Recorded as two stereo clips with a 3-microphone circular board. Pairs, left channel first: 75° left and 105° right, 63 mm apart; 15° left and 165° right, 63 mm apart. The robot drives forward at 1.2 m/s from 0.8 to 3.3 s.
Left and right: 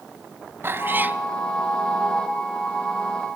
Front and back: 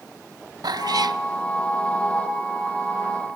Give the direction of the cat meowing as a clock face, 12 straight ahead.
5 o'clock.